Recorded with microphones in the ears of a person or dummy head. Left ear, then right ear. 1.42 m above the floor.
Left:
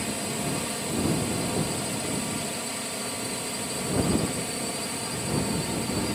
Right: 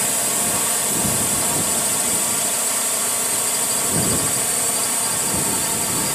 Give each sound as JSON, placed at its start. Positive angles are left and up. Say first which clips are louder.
{"t": 0.0, "sound": "a drone", "louder": "right 8 dB", "side_deg": -50}